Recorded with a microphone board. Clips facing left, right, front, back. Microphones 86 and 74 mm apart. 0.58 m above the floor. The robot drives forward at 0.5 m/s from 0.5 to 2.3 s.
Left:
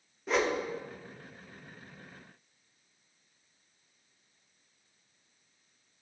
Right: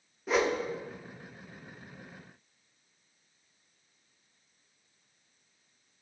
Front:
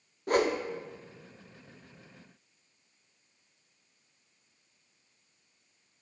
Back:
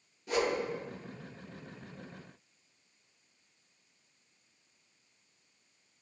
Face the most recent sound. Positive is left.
turn(degrees=-175)